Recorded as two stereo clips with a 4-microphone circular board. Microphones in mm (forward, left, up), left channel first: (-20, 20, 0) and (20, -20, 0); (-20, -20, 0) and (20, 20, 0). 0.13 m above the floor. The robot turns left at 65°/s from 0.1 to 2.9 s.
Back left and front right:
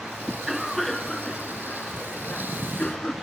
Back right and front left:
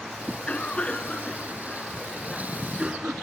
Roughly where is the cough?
Right.